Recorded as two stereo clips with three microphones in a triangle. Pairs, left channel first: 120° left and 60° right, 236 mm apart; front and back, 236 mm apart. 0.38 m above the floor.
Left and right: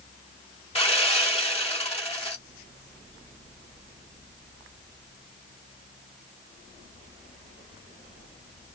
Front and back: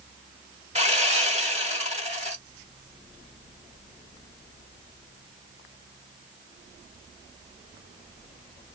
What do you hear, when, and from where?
0.8 s sawing: 155° left, 1.3 m